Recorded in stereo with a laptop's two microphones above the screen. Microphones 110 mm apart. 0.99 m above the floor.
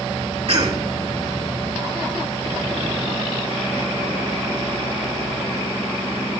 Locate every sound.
0.5 s a cough: 60° right (ahead or behind), 2.5 m